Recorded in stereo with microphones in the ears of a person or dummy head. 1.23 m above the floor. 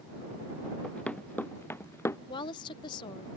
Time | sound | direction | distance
0.8 | running footsteps | 10° left (ahead or behind) | ?
2.3 | a woman speaking | 20° left (ahead or behind) | ?